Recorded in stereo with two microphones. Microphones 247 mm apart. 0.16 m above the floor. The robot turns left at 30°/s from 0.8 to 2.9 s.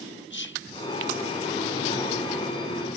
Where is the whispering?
50° left (ahead or behind), 1.8 m.